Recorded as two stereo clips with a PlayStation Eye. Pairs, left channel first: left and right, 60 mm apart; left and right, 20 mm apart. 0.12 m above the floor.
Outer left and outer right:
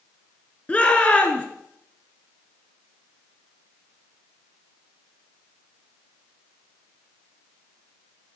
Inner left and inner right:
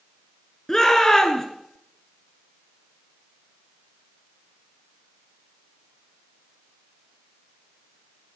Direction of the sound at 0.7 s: 25° left (ahead or behind).